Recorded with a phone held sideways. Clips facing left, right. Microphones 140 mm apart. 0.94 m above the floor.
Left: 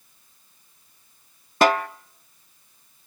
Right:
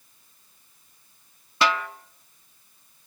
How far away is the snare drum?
About 0.5 m.